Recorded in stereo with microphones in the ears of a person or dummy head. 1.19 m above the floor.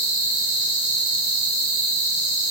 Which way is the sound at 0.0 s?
30° right (ahead or behind).